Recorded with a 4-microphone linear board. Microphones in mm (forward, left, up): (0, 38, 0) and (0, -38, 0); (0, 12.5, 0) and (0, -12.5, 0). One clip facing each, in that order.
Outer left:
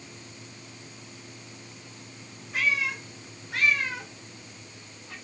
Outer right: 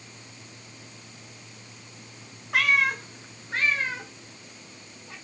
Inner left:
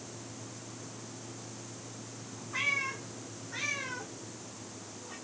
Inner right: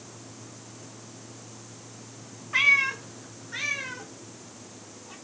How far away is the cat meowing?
About 0.9 m.